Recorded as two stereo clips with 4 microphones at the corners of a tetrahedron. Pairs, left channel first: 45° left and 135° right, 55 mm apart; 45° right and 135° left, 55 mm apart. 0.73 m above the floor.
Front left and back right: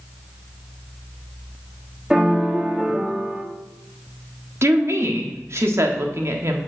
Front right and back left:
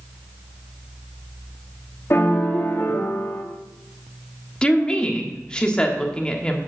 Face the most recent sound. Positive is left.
turn(degrees=-115)